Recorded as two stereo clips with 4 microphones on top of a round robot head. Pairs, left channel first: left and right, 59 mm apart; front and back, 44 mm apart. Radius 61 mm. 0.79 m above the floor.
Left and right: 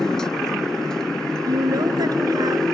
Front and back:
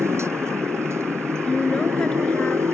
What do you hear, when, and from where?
0.0 s a motorcycle: 175° left
1.4 s a woman speaking: 75° right